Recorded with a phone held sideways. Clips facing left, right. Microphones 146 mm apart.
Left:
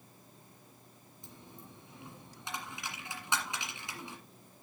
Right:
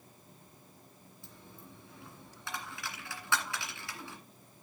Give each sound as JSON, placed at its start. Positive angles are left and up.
{"t": 1.2, "sound": "a dropped coin", "side_deg": 20, "distance_m": 1.9}